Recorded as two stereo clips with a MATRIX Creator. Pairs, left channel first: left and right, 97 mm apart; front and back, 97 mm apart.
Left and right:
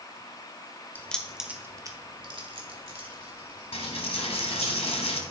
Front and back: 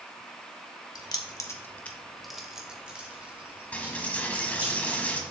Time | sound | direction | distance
0.9 | keys jangling | 25° left | 1.1 m
3.7 | a dropped coin | 75° left | 1.2 m